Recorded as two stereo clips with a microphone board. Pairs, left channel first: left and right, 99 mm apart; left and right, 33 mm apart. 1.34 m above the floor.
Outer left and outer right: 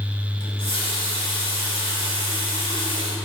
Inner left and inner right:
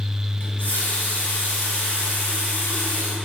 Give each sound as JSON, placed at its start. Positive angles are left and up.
{"t": 0.4, "sound": "a running tap", "side_deg": 60, "distance_m": 2.5}